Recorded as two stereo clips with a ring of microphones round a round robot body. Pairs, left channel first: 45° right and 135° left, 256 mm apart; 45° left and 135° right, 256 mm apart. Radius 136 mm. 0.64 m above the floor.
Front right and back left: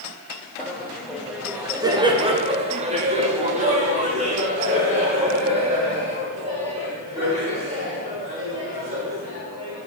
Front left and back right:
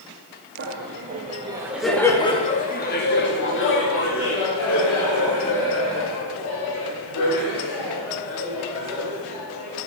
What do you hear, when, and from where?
0.6 s laughter: 125° right, 0.9 m; by 9.8 s 70° left, 4.5 m